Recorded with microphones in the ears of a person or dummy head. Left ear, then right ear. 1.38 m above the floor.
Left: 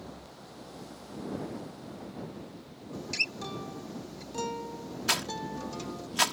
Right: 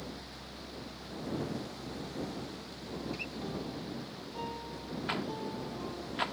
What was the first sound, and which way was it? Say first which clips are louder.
A guitar: left 9 dB; 60° left (ahead or behind).